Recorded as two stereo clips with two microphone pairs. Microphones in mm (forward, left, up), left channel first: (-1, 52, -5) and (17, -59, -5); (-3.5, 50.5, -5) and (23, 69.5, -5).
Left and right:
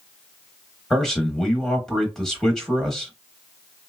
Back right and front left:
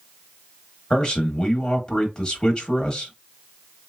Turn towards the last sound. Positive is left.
turn(degrees=180)